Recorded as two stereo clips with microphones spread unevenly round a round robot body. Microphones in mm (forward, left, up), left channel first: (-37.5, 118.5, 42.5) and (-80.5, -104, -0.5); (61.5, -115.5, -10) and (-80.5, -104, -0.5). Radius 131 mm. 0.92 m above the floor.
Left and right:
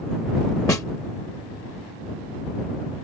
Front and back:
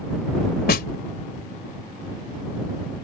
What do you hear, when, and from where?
0.7 s a snare drum: straight ahead